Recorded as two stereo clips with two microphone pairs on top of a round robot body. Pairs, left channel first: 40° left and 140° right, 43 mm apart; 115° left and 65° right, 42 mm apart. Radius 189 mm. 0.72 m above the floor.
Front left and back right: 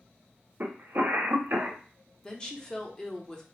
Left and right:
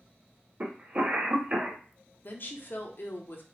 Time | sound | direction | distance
0.6 | a cough | 110° right | 1.0 m
2.2 | a woman speaking | 115° left | 1.0 m